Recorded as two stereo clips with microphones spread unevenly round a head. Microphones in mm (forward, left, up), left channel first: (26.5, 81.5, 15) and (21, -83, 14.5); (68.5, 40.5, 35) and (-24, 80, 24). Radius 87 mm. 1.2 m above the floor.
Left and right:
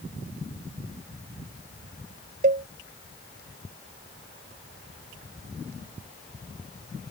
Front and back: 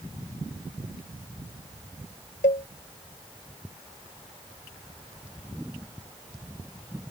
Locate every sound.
2.4 s a cowbell: 50° right